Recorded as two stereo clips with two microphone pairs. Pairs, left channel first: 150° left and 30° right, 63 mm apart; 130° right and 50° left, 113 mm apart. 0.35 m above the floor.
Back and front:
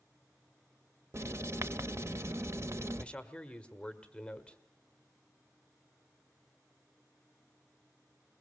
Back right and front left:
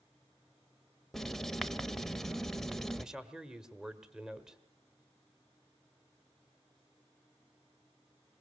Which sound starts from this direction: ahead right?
Writing, at 1.1 s.